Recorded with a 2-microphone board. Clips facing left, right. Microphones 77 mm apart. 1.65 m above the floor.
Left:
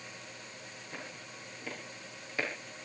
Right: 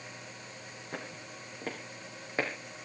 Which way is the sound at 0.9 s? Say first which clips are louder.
Right 4 dB; 55° right (ahead or behind).